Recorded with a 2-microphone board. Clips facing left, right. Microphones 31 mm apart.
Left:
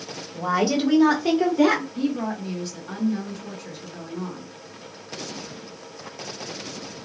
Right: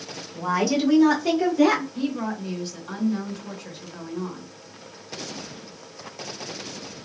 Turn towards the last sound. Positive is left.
turn(degrees=-20)  # may be behind; listen again after turning